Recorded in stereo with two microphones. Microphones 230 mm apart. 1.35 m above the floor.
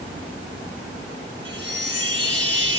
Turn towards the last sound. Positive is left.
turn(degrees=-55)  # may be behind; listen again after turning